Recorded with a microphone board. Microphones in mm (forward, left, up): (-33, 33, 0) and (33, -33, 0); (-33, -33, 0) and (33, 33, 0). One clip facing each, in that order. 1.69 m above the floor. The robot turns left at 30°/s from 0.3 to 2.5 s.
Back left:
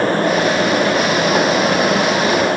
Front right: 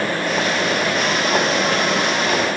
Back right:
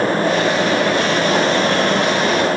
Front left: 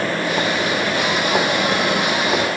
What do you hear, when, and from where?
Only background noise.